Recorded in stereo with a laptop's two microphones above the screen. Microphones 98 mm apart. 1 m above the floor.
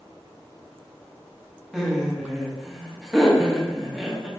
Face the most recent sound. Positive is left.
turn(degrees=-5)  # may be behind; listen again after turning